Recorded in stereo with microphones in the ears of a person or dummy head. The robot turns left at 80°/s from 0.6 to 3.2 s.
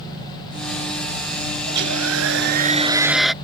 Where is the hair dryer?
60° right; by 3.3 s straight behind.